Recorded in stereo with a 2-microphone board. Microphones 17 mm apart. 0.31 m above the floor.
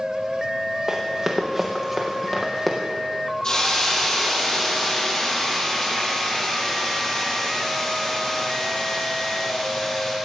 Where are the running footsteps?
20° right (ahead or behind), 3.5 m; by 2.8 s 15° left (ahead or behind), 4.5 m.